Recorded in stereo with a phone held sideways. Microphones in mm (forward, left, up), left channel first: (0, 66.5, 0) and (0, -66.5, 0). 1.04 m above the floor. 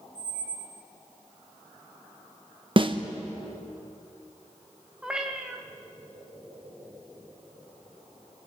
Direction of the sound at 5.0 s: 5° right (ahead or behind).